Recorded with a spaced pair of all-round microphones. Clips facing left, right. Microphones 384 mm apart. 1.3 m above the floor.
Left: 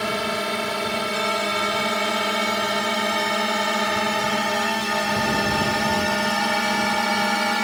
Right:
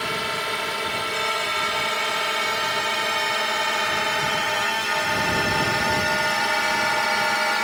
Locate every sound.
0.0 s a drone: 55° left (ahead or behind); by 7.7 s 50° left (ahead or behind)